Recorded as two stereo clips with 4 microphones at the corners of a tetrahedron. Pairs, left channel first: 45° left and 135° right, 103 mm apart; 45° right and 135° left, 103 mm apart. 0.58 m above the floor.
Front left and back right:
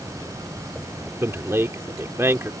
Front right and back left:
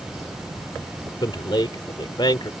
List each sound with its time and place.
1.2 s a man speaking: 75° right